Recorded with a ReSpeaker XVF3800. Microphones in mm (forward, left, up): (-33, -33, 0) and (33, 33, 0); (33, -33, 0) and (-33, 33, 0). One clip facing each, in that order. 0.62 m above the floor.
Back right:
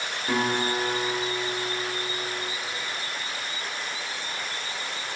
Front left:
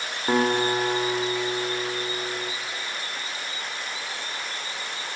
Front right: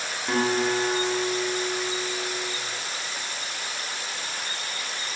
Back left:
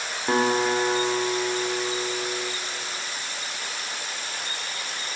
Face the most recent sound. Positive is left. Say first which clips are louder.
# front left 4 dB, back left 2 dB
turn(degrees=80)